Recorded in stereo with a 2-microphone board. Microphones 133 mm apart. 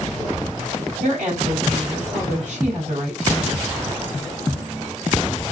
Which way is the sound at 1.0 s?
60° right (ahead or behind).